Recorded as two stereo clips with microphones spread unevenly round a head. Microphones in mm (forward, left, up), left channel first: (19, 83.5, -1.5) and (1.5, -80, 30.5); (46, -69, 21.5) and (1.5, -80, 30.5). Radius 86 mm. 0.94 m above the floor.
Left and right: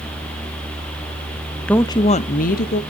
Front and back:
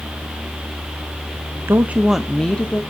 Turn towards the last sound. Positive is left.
turn(degrees=75)